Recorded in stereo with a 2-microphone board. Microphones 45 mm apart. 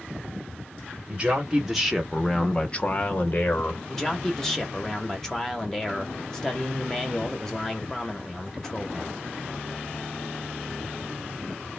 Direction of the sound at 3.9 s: 10° left (ahead or behind).